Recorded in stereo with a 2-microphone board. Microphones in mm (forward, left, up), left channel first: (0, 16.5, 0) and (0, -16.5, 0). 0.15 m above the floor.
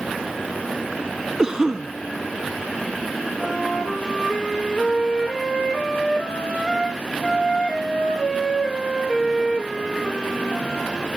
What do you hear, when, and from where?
1.4 s a cough: 20° right (ahead or behind), 1.3 m
3.4 s a flute: 25° left (ahead or behind), 9.5 m